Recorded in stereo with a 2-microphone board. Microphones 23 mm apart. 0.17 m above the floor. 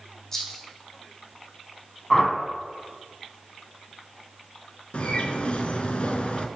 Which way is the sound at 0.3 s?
20° left (ahead or behind).